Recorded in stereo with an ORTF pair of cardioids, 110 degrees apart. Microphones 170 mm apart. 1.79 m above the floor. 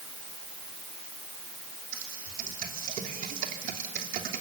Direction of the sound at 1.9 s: 60° right.